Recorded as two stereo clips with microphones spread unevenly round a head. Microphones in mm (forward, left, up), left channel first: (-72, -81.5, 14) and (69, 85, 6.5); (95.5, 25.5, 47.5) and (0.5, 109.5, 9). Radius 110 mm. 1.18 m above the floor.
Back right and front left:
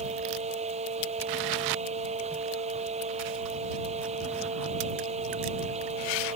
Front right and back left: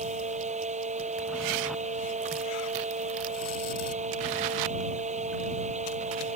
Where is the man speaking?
I don't hear a man speaking.